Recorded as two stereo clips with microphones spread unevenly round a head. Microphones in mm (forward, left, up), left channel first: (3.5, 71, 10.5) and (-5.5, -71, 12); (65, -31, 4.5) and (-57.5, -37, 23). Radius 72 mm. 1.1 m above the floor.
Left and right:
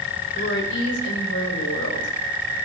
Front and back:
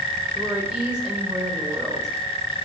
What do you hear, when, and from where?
0.3 s a woman speaking: 100° left, 4 m